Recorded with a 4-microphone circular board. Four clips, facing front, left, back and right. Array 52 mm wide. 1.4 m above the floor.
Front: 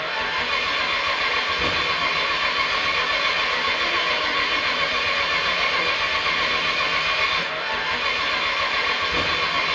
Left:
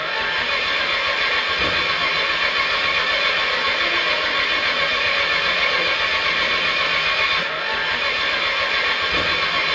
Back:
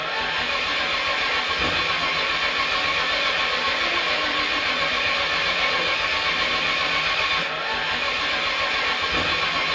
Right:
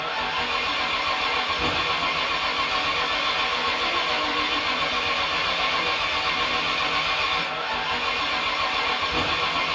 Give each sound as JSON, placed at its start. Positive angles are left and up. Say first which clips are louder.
{"t": 0.0, "sound": "an engine running", "louder": "left 4 dB, front 1 dB", "azimuth_deg": 85, "distance_m": 4.0}